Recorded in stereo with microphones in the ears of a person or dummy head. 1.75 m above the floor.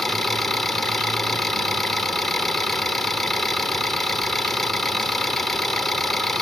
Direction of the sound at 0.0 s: 5° left (ahead or behind).